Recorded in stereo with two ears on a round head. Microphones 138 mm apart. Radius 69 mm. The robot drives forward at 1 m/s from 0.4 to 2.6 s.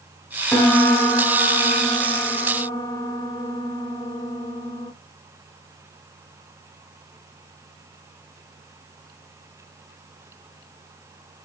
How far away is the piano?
About 3.5 m.